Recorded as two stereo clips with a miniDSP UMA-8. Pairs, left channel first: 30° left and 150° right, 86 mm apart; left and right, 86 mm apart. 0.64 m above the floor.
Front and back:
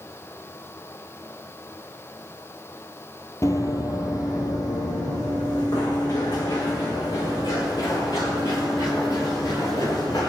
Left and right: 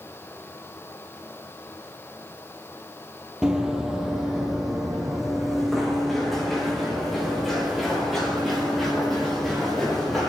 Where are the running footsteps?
10° right, 1.1 m; by 10.3 s straight ahead, 6.5 m.